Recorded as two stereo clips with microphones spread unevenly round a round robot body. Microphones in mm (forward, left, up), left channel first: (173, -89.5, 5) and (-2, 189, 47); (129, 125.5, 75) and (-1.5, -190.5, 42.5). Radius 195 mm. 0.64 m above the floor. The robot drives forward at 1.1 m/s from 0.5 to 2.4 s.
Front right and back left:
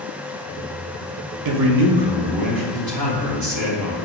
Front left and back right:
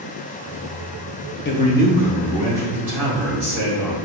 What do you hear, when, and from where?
1.4 s a man speaking: 125° left, 0.6 m; by 4.0 s 165° left, 1.4 m